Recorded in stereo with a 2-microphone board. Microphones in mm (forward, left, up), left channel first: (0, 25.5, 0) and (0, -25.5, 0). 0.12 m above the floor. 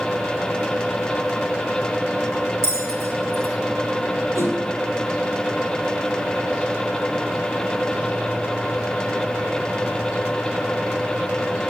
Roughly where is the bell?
Right.